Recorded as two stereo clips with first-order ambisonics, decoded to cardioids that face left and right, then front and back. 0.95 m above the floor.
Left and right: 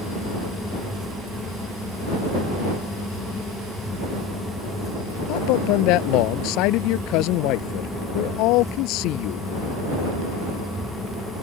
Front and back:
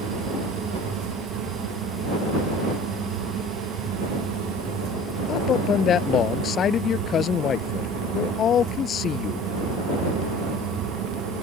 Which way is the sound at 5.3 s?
60° left.